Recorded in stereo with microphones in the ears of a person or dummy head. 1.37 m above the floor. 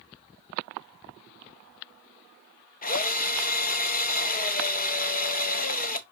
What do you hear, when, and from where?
2.8 s a drill: 40° left (ahead or behind), 0.7 m